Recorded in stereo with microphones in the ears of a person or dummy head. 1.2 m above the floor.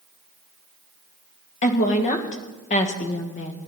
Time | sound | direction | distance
1.6 | a woman speaking | 35° left (ahead or behind) | 1.4 m